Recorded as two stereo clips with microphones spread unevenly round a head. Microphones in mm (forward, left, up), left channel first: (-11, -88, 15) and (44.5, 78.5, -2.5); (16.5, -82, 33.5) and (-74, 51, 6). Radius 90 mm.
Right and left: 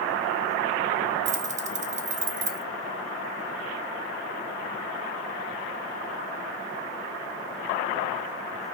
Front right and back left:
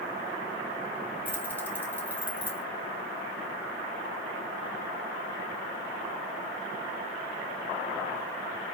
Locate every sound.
1.2 s keys jangling: 25° left, 0.9 m